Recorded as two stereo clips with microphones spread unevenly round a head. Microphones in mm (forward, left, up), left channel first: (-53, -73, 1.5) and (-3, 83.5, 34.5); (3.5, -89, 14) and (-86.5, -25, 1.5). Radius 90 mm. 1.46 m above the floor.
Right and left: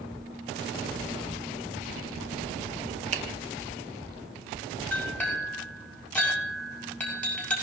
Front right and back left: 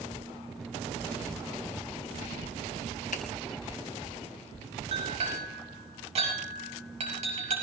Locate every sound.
3.1 s a finger snap: 15° left, 0.9 m
4.9 s a clink: 170° left, 6 m